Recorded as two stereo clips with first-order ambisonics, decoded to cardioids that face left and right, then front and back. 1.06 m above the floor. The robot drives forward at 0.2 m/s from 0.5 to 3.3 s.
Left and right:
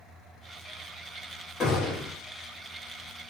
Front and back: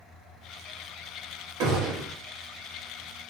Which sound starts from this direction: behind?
A gunshot, at 1.6 s.